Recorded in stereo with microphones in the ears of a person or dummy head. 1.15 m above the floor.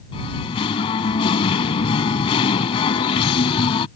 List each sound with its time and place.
0.1 s singing: 35° left (ahead or behind)